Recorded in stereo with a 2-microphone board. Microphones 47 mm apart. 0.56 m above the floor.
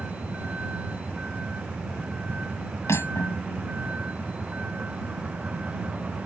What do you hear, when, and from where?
0.0 s a vehicle: 30° right (ahead or behind)
2.9 s cutlery clinking: 80° left